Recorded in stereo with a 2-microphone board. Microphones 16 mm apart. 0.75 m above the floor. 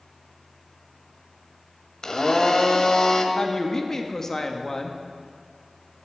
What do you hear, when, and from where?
2.0 s a blender: 45° left (ahead or behind), 1.2 m
3.4 s a woman speaking: 25° left (ahead or behind), 1.0 m